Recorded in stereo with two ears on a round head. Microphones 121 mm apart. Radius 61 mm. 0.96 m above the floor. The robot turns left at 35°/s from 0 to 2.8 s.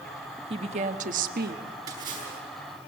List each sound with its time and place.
0.5 s a woman speaking: 40° right, 1.3 m; by 1.6 s 80° right, 1.3 m
1.9 s a splash: 25° right (ahead or behind), 7 m; by 2.4 s 45° right (ahead or behind), 7 m